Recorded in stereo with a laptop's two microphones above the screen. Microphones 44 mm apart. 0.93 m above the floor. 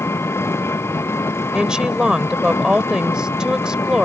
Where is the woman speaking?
20° right (ahead or behind).